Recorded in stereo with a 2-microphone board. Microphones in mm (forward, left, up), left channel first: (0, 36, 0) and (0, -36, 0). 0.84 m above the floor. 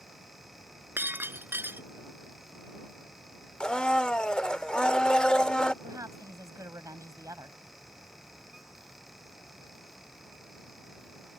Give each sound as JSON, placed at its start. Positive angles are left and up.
{"t": 1.0, "sound": "breaking glass", "side_deg": -30}
{"t": 3.6, "sound": "a blender", "side_deg": 15}
{"t": 5.8, "sound": "a woman speaking", "side_deg": -50}